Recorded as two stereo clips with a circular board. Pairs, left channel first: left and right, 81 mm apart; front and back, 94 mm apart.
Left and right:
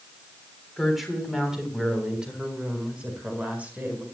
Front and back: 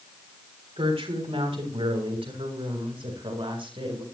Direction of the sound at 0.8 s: Straight behind.